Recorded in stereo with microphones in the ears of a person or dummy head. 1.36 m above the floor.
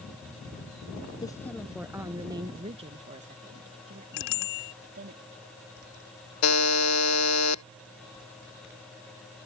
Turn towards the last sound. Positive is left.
turn(degrees=85)